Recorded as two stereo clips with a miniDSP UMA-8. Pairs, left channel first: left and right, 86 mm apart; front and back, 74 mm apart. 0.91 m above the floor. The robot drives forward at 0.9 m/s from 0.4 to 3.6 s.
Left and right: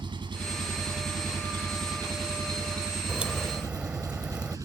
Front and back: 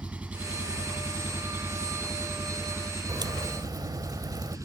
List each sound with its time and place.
0.0 s an engine running: 110° right; by 4.7 s 135° right
3.1 s a crack: 165° right